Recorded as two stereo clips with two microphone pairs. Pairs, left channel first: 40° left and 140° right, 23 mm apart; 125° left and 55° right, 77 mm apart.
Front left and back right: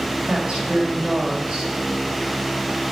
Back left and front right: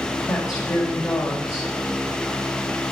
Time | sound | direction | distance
0.3 | a woman speaking | 170° left | 2 m